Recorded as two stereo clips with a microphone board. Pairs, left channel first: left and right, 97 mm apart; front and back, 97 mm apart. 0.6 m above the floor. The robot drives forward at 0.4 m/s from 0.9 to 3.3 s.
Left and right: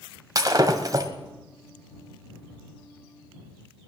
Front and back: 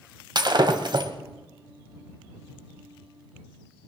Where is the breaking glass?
140° right, 1.3 m; by 1.1 s 145° right, 1.4 m.